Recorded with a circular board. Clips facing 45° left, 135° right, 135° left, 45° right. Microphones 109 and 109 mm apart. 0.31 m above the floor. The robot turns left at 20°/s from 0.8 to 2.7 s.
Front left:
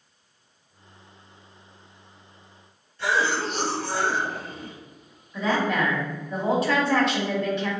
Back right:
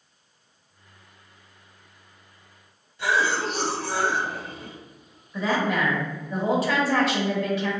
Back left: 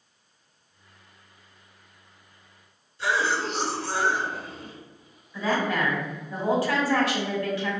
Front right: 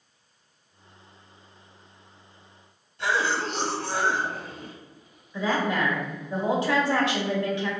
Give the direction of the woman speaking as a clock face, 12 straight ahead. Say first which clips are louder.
Even, even; 2 o'clock.